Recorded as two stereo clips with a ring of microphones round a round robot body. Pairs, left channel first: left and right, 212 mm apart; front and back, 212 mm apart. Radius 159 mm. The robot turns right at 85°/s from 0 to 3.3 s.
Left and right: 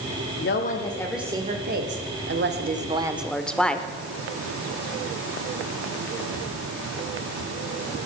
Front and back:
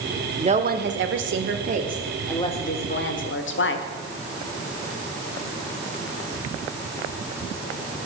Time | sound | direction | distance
0.4 | a woman speaking | 115° left | 1.6 m